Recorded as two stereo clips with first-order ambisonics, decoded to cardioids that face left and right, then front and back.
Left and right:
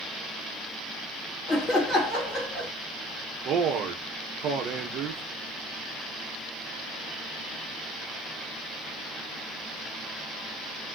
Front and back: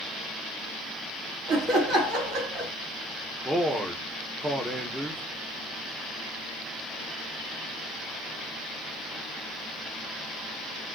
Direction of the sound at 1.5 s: 150° left.